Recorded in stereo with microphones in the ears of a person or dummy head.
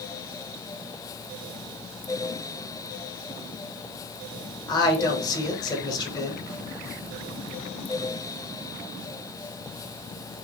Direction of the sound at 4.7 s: 20° left (ahead or behind).